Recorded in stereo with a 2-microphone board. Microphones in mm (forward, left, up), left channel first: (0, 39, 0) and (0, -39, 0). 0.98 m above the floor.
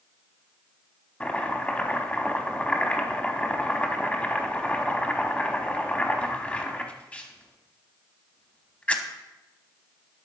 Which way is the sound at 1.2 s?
20° left (ahead or behind).